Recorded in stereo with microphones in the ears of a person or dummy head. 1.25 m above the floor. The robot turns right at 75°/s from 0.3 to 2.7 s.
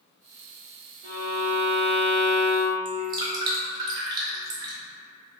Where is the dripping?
20° right (ahead or behind), 0.7 m.